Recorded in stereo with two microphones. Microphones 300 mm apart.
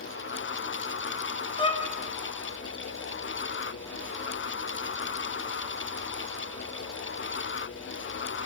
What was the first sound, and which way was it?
A violin, 15° left (ahead or behind).